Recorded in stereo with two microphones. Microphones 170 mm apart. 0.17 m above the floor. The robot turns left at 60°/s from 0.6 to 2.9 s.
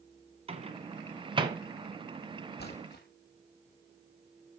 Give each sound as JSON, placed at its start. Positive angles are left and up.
{"t": 0.5, "sound": "a microwave", "side_deg": -35, "distance_m": 1.5}
{"t": 2.6, "sound": "a splash", "side_deg": 65, "distance_m": 3.0}